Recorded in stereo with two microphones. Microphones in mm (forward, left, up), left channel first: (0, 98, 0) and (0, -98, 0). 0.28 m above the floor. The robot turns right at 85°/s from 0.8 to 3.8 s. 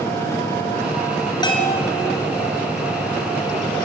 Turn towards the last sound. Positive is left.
turn(degrees=-135)